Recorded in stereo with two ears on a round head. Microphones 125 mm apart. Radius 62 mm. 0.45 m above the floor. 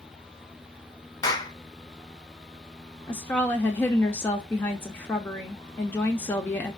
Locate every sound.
1.2 s a clap: 30° left (ahead or behind), 1.1 m
3.1 s a woman speaking: 15° left (ahead or behind), 0.7 m